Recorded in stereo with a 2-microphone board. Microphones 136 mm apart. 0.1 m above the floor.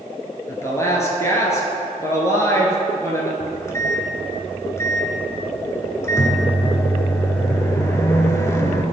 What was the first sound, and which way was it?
A woman speaking, 20° left (ahead or behind).